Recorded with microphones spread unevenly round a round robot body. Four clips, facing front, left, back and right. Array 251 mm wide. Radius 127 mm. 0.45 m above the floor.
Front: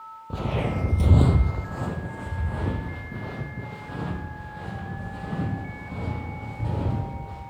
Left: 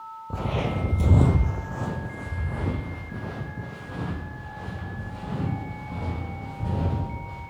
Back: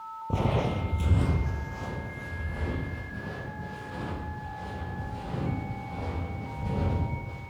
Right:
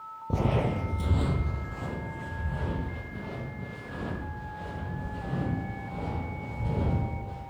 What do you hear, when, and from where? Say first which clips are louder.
0.3 s footsteps: right 1 dB, even; 115° right, 0.5 m; by 7.4 s 50° left, 7 m